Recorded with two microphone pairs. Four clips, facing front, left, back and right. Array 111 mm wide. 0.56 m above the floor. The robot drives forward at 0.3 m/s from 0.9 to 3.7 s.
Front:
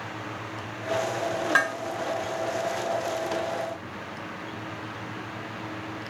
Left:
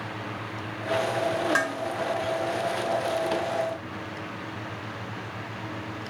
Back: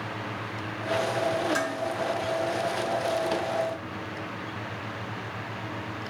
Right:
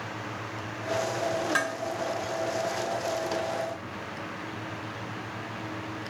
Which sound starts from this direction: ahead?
Dishes clattering, at 1.6 s.